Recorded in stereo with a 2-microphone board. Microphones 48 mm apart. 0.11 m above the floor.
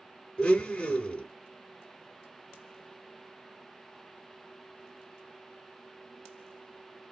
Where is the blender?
20° left (ahead or behind), 1.2 m.